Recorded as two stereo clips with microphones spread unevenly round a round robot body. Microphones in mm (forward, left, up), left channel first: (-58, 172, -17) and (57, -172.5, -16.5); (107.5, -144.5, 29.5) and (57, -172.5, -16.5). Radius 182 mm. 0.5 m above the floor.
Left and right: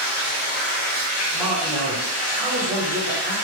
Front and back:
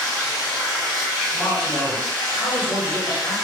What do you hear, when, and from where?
0.0 s running water: 85° left, 1.7 m
1.3 s a man speaking: 15° left, 1.2 m